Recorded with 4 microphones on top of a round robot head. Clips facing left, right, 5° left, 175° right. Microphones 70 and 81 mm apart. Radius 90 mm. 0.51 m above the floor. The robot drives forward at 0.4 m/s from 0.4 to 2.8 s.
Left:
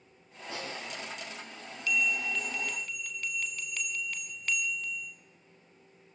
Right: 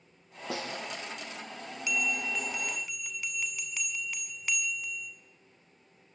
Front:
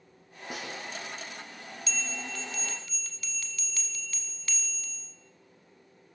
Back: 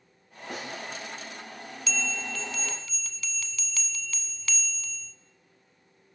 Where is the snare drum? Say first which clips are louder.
Right 3 dB, back 2 dB; 80° right, 6 m.